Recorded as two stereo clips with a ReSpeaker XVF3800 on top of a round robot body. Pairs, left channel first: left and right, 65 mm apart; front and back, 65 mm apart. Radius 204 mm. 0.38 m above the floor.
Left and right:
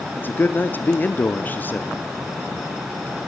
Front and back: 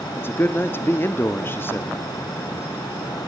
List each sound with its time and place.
0.2 s a man speaking: 40° left, 1.4 m